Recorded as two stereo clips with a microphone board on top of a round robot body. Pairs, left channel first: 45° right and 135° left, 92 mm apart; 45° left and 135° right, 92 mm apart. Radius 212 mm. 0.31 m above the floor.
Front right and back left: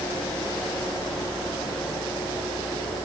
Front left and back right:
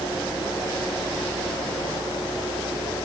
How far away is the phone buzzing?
I don't hear a phone buzzing.